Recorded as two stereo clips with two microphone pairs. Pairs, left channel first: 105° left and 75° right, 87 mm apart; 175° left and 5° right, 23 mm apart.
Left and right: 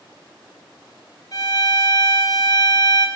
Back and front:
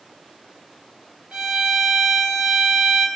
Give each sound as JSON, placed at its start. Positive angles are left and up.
{"t": 1.3, "sound": "a violin", "azimuth_deg": 55, "distance_m": 5.0}